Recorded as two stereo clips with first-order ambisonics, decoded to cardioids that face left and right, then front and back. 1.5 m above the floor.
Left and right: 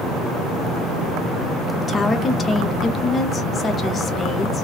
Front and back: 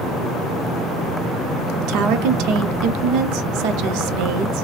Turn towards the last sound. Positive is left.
turn(degrees=160)